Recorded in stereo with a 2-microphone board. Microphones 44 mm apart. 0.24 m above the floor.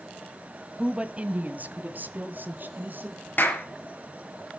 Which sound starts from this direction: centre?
A woman speaking, at 0.8 s.